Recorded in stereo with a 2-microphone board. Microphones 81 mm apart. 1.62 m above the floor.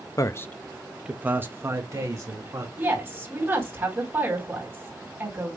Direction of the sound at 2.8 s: 25° right (ahead or behind).